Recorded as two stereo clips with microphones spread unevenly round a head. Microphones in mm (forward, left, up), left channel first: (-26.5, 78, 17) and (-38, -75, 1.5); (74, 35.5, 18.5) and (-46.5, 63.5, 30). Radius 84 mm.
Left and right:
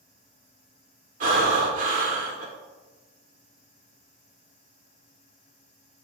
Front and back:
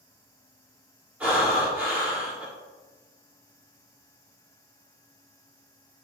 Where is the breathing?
115° right, 1.7 m.